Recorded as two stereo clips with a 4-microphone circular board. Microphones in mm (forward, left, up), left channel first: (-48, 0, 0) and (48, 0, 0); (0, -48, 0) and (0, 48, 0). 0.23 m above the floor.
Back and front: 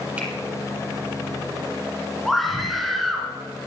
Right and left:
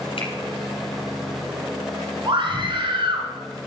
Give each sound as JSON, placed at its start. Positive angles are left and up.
{"t": 0.2, "sound": "a finger snap", "azimuth_deg": -75, "distance_m": 4.5}
{"t": 2.2, "sound": "a scream", "azimuth_deg": 90, "distance_m": 3.0}